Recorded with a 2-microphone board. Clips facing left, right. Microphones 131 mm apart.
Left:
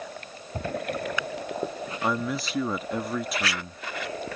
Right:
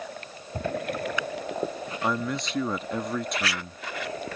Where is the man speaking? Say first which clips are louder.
Even; 5° left (ahead or behind).